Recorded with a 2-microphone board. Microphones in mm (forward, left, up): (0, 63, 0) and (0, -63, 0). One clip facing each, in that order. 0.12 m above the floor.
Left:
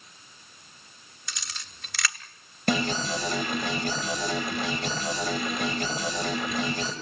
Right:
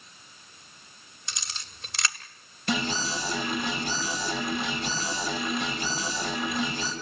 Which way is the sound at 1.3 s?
25° right (ahead or behind).